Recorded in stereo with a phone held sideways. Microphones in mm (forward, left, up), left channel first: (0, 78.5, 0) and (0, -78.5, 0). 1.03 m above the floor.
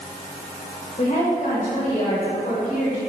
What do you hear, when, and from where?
1.0 s a woman speaking: 55° left (ahead or behind), 5 m